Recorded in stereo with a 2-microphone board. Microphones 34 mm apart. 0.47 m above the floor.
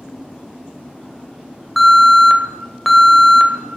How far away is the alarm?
About 1.5 m.